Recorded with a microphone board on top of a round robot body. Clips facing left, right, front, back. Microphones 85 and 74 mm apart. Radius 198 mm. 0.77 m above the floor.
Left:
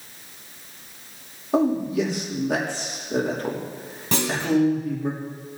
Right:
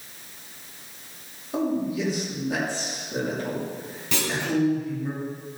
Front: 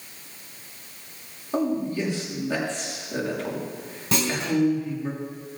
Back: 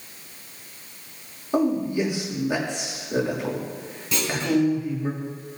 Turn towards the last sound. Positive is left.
turn(degrees=40)